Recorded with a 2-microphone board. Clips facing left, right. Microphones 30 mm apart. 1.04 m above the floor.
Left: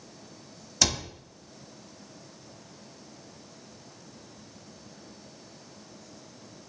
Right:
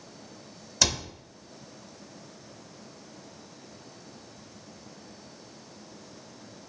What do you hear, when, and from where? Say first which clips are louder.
0.8 s a cupboard door: right 1 dB; 5° right (ahead or behind), 0.7 m